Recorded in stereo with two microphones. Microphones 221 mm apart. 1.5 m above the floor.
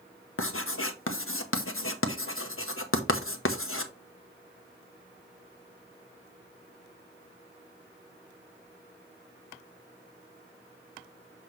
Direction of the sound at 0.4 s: 70° left (ahead or behind).